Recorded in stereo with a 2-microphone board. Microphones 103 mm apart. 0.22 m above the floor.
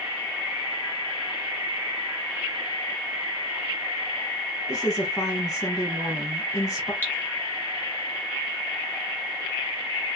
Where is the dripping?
20° left (ahead or behind), 1.4 m.